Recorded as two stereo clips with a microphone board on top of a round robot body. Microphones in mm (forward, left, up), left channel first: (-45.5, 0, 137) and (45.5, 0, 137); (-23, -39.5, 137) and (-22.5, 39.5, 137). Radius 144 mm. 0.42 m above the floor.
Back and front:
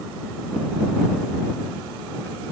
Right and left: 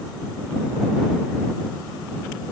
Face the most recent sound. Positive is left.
No sound to turn to.